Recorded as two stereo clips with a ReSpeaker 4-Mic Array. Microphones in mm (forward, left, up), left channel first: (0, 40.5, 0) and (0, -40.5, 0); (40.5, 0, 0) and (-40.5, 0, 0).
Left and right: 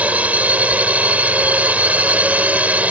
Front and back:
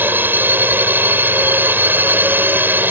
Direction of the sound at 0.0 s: 145° right.